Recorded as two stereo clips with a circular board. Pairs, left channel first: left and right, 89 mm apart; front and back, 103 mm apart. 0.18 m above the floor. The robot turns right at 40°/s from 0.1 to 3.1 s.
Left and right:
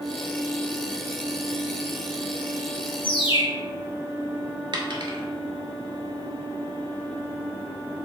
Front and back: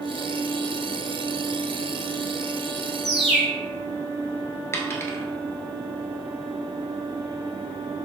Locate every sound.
3.0 s a bird: 95° left, 1.2 m; by 3.5 s 100° left, 1.2 m
4.7 s a dropped coin: 65° right, 0.9 m